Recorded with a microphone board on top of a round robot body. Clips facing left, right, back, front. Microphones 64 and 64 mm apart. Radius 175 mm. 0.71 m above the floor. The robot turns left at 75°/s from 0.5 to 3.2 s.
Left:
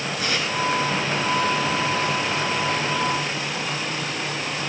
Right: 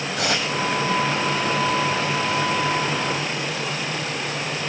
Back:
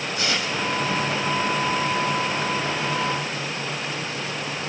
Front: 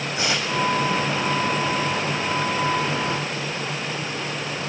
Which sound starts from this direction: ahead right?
Tearing paper, at 0.2 s.